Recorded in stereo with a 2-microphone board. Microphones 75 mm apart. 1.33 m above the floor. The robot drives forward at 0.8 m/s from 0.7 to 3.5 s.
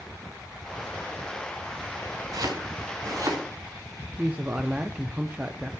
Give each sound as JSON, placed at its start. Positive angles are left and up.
{"t": 2.3, "sound": "chopping", "side_deg": -65, "distance_m": 3.0}
{"t": 4.2, "sound": "a man speaking", "side_deg": -20, "distance_m": 0.6}